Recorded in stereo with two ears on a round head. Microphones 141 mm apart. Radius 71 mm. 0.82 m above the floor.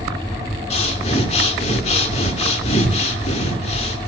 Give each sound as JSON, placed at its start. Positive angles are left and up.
{"t": 0.7, "sound": "breathing", "side_deg": 40, "distance_m": 2.5}